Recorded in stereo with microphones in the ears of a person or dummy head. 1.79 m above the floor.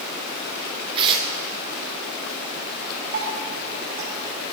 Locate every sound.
0.9 s tearing paper: 25° right (ahead or behind), 0.6 m
3.1 s dripping: 20° right (ahead or behind), 1.0 m